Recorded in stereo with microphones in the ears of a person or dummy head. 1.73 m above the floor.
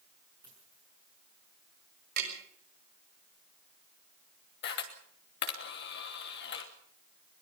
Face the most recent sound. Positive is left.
turn(degrees=65)  # may be behind; listen again after turning